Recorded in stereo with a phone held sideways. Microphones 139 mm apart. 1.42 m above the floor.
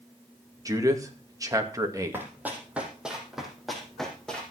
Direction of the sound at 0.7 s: 25° right (ahead or behind).